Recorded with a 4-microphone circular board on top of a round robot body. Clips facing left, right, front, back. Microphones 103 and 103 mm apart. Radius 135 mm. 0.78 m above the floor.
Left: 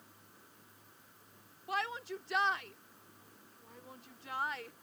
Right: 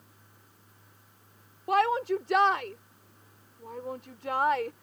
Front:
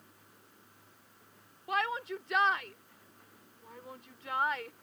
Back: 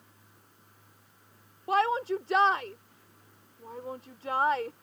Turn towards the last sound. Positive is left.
turn(degrees=-125)